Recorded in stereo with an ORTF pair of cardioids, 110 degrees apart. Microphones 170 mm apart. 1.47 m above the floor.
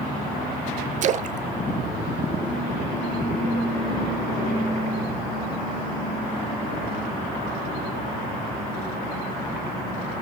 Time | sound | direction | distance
1.0 | a splash | 45° right | 0.6 m